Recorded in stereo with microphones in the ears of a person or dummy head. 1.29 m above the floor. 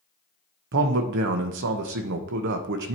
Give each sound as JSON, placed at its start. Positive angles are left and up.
{"t": 0.7, "sound": "a man speaking", "side_deg": -60, "distance_m": 0.8}